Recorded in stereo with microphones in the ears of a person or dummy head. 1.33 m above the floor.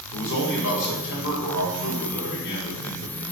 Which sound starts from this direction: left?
A man speaking, at 0.1 s.